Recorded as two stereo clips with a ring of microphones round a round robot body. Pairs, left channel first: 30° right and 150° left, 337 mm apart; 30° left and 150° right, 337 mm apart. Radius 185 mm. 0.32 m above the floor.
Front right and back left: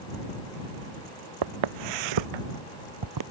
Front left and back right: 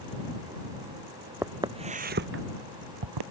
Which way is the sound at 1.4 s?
125° left.